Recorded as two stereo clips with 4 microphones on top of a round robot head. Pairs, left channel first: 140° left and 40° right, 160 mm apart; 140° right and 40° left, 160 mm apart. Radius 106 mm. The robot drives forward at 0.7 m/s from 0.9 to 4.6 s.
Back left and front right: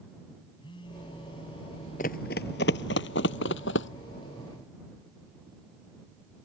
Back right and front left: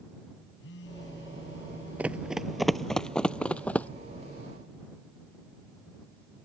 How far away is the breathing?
No breathing in this recording.